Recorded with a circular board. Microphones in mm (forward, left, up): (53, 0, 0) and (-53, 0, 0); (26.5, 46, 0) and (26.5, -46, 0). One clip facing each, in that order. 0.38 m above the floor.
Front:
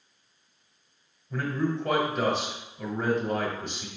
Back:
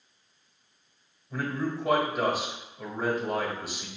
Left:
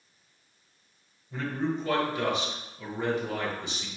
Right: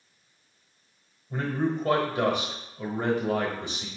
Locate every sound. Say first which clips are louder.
1.3 s a man speaking: front 2 dB, right 3 dB; 100° right, 1.4 m